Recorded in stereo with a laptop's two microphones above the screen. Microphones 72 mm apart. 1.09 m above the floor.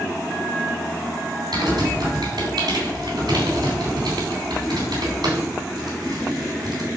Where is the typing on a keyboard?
70° right (ahead or behind), 3.5 m.